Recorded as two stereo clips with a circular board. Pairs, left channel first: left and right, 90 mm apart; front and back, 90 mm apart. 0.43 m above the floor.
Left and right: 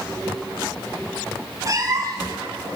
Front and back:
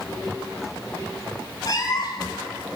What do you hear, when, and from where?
1.6 s a cat meowing: 45° right, 1.0 m